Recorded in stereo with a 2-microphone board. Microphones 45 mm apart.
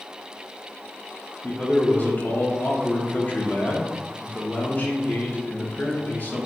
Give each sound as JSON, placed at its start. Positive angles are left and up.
{"t": 1.4, "sound": "a man speaking", "side_deg": 40, "distance_m": 0.7}